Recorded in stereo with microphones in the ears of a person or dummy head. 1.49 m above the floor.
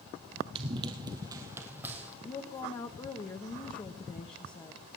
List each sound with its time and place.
0.6 s running footsteps: 30° right (ahead or behind), 2 m; by 2.1 s 10° right (ahead or behind), 3 m
2.2 s a woman speaking: 20° left (ahead or behind), 1.0 m